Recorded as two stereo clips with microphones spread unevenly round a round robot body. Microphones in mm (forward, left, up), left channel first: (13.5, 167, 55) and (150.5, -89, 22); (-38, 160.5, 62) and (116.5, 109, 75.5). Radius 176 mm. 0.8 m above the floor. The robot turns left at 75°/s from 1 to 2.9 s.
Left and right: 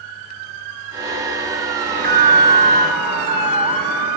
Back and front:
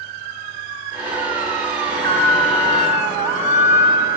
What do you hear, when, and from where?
1.8 s an alarm: 15° left, 5 m; by 4.1 s 65° right, 5 m